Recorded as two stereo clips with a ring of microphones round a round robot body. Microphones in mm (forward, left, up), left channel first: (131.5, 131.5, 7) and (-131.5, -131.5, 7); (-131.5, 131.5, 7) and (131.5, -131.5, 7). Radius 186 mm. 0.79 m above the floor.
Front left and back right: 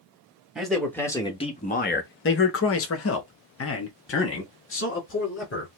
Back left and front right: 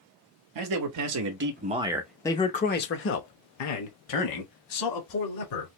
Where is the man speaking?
45° right, 0.9 m; by 5.7 s 105° left, 2 m.